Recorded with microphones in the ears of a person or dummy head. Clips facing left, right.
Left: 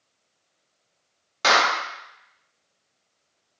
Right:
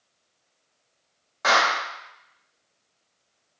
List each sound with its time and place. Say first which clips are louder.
1.4 s a clap: left 1 dB; 40° left (ahead or behind), 0.7 m